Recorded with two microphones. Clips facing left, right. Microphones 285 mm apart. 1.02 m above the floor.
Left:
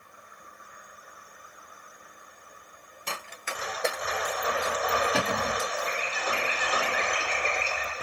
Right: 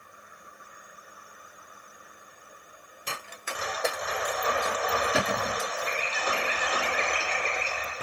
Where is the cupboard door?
Centre (ahead or behind), 1.1 m.